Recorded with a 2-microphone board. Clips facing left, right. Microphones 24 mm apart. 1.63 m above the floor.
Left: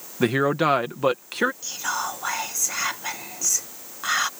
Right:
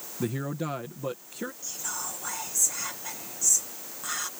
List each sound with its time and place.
0.2 s a man speaking: 70° left (ahead or behind)
1.6 s whispering: 40° left (ahead or behind)